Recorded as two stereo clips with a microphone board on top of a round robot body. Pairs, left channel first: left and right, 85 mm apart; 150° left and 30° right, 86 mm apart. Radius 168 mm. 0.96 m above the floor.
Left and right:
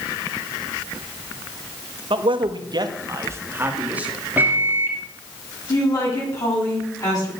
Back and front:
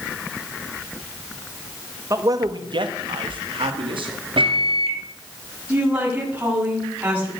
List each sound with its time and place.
2.1 s a man speaking: 85° right, 1.7 m; by 4.2 s 10° right, 3 m
4.4 s a microwave: 20° right, 2 m
5.7 s a woman speaking: 40° left, 8 m